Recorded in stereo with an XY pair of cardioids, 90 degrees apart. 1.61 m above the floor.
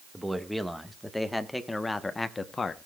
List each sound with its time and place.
0.1 s a man speaking: 5° right, 2.5 m; by 2.9 s 45° left, 1.4 m